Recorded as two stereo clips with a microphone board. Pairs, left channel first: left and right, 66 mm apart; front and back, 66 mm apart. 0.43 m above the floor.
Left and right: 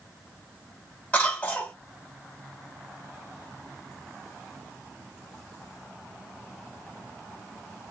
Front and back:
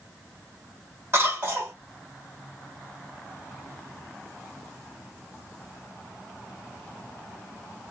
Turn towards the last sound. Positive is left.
turn(degrees=145)